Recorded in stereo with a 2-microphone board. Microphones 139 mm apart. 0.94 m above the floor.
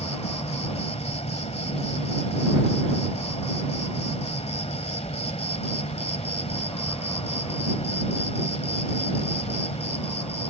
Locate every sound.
0.0 s an insect: 50° left (ahead or behind)